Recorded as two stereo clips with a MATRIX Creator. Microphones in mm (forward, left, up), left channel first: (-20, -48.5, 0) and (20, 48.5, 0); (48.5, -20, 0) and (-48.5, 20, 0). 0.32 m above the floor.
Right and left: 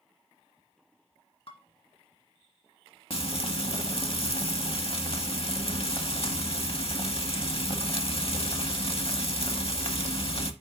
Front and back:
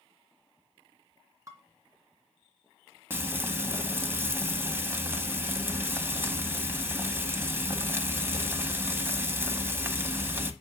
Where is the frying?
135° right, 0.9 m.